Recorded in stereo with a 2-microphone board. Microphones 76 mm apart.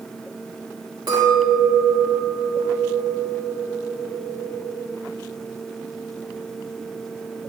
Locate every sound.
1.1 s a clink: 65° right (ahead or behind), 1.9 m